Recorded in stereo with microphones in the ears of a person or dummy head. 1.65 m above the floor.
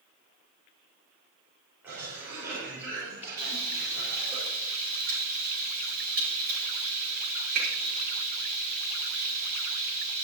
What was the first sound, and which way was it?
A cough, 10° right (ahead or behind).